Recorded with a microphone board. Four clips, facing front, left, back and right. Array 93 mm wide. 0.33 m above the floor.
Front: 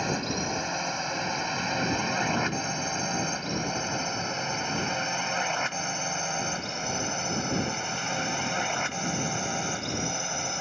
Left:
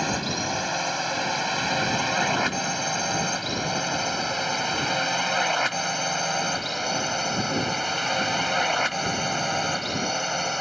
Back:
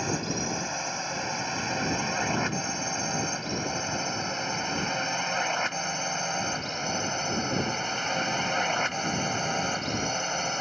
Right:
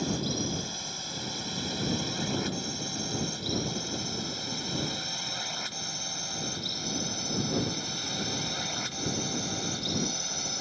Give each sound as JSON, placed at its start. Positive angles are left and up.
{"t": 0.0, "sound": "a drone", "azimuth_deg": 80}